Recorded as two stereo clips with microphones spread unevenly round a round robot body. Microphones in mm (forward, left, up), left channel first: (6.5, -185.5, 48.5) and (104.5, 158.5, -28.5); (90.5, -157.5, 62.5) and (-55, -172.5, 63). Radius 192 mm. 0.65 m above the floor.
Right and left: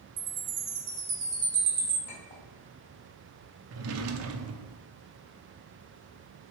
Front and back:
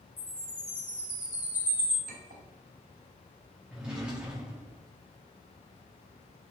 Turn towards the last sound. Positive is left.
turn(degrees=105)